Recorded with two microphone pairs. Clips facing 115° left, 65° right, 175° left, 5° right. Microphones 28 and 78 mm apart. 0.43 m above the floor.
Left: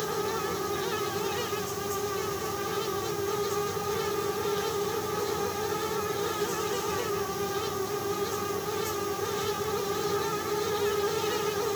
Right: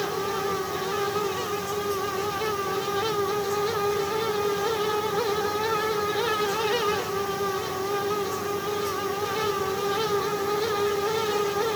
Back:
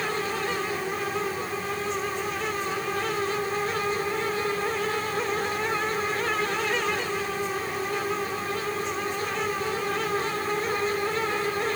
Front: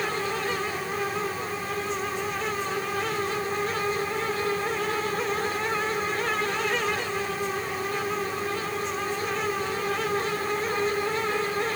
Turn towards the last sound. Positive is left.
No sound to turn to.